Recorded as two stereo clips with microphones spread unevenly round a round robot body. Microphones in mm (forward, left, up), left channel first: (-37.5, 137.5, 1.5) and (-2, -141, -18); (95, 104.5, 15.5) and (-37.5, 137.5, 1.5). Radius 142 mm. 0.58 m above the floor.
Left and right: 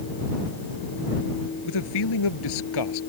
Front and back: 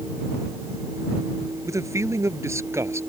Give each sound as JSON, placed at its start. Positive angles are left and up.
{"t": 1.6, "sound": "a man speaking", "azimuth_deg": 95}